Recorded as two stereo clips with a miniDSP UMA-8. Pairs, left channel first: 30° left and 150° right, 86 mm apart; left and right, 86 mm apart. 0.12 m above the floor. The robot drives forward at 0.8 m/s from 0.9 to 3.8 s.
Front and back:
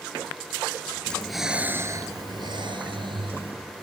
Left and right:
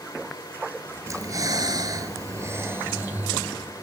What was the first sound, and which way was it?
Breathing, 45° right.